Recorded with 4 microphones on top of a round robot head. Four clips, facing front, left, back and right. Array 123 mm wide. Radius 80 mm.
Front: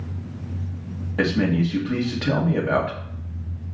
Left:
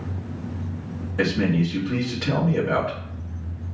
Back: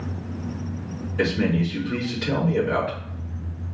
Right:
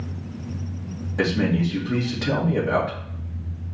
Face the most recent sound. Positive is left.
turn(degrees=-15)